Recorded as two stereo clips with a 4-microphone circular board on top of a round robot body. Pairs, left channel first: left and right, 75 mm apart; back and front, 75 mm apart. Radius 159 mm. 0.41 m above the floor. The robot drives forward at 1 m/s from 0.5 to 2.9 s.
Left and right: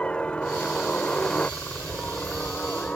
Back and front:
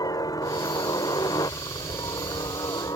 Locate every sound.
0.0 s a helicopter: 165° left